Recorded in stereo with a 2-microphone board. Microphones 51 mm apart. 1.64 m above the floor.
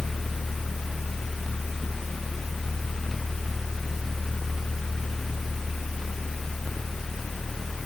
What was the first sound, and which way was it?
Only background noise.